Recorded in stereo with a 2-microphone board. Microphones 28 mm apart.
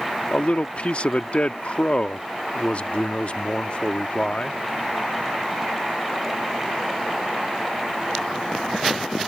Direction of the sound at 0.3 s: 50° left (ahead or behind).